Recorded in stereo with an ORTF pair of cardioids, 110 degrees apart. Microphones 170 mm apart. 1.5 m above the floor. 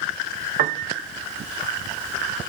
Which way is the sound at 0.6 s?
55° right.